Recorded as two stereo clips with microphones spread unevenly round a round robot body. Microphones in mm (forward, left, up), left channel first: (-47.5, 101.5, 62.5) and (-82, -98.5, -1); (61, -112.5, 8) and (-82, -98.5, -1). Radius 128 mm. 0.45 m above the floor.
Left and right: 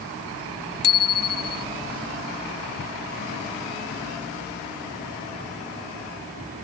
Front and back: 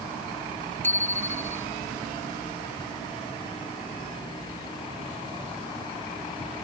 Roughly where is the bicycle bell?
Left.